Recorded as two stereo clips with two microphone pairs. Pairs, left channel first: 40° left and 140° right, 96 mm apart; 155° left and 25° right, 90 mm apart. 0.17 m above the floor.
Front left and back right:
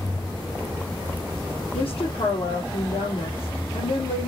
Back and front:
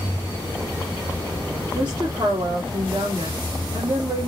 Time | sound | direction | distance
1.7 | a woman speaking | 30° left | 4.5 m